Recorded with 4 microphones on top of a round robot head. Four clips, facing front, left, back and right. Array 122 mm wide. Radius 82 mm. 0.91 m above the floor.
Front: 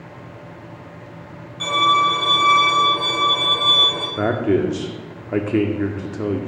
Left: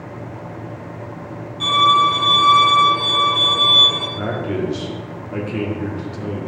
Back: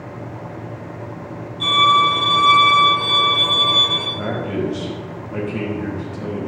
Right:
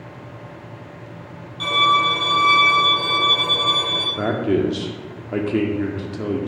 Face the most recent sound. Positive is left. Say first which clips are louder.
# right 5 dB, front 7 dB
turn(degrees=-25)